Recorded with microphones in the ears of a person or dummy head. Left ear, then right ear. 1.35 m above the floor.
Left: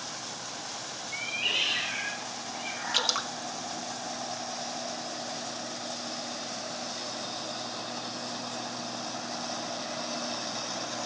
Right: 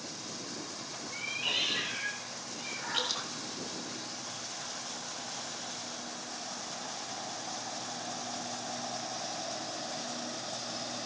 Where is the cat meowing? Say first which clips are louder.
Left 3 dB; 30° left (ahead or behind), 7 m; by 3.9 s 65° left (ahead or behind), 7 m.